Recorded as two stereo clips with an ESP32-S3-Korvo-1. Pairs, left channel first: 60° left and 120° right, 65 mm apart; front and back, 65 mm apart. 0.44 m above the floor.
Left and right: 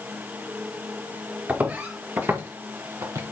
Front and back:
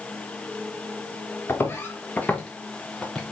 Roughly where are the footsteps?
Ahead right.